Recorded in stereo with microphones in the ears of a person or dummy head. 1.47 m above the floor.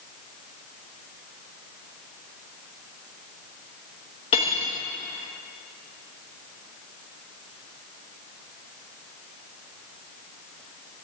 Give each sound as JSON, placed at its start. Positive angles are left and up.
{"t": 4.3, "sound": "cutlery clinking", "side_deg": 25, "distance_m": 1.0}